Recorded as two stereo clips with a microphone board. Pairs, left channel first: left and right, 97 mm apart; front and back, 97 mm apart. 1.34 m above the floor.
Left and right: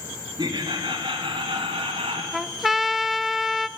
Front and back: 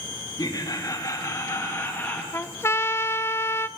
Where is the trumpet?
5° right, 0.7 m.